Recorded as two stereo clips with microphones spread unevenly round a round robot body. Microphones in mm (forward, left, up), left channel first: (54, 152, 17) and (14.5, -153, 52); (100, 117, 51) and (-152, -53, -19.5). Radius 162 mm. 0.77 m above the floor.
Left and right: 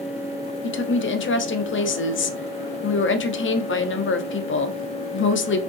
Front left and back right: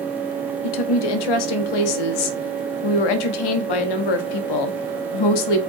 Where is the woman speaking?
35° left, 1.1 m.